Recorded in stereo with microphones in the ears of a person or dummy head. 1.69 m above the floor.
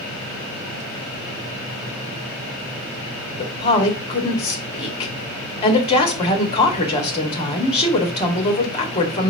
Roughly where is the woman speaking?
Left.